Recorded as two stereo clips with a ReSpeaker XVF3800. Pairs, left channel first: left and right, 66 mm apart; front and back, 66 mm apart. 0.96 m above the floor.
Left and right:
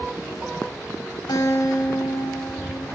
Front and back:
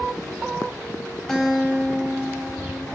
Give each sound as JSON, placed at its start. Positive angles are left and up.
{"t": 1.3, "sound": "a guitar", "azimuth_deg": 85, "distance_m": 6.0}